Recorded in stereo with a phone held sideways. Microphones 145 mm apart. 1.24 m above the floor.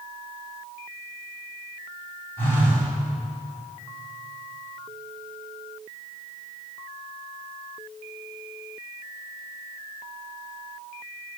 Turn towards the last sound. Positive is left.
turn(degrees=15)  # may be behind; listen again after turning